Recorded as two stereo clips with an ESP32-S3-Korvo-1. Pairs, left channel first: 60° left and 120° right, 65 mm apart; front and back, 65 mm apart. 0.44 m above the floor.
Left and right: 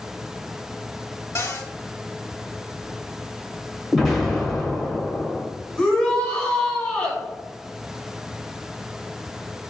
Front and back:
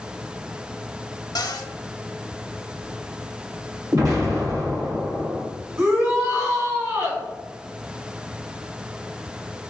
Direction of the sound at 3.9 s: 155° left.